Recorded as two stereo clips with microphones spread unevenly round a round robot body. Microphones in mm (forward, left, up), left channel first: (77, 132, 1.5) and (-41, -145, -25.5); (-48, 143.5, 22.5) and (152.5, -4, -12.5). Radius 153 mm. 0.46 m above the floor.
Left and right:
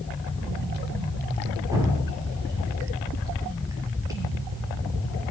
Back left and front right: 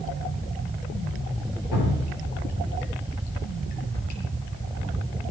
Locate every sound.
1.7 s dripping: 170° left, 4.5 m